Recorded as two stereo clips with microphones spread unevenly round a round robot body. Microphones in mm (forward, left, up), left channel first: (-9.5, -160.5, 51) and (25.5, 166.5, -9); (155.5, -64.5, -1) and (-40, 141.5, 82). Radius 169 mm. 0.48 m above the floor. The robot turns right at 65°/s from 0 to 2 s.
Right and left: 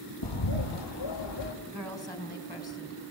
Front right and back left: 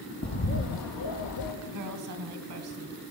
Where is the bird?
125° right, 3 m; by 1.6 s 40° right, 3 m.